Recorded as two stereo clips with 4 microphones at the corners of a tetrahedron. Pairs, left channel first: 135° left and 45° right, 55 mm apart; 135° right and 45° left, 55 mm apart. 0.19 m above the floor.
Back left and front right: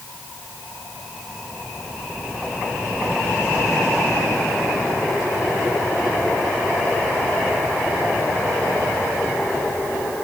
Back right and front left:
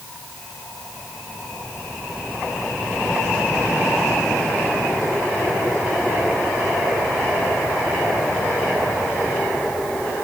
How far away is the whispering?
No whispering in this recording.